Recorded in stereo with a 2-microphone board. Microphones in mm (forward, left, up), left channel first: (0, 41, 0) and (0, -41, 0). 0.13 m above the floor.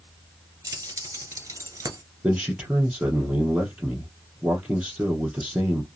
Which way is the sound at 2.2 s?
20° right (ahead or behind).